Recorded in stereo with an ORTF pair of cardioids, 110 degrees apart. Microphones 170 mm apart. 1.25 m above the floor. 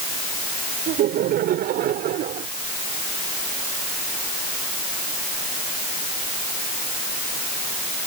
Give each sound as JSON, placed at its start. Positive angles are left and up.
{"t": 0.9, "sound": "laughter", "azimuth_deg": -65}